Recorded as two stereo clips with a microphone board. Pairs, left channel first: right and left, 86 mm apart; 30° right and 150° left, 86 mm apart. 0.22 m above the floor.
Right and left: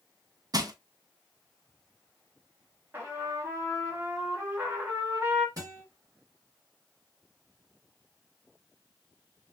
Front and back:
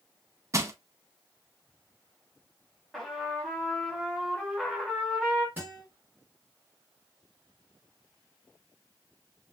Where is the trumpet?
65° left, 1.2 m.